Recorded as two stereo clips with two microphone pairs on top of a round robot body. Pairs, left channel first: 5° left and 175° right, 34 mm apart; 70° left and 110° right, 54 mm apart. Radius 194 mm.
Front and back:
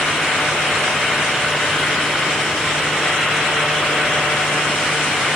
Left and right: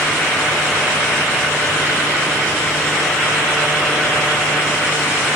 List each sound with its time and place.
Only background noise.